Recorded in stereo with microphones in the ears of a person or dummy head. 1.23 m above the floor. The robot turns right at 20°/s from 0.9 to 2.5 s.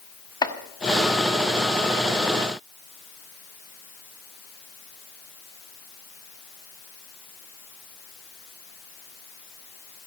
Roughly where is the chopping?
Left.